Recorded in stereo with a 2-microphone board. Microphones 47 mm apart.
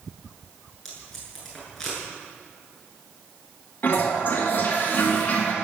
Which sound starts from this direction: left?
A toilet flushing, at 3.8 s.